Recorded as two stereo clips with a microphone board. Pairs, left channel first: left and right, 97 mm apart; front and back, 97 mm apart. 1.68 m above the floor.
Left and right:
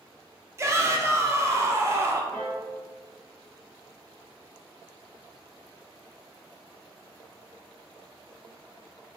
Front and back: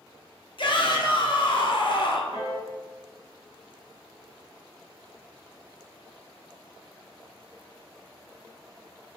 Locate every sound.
0.6 s a shout: 30° right, 0.7 m
2.3 s a piano: 35° left, 1.8 m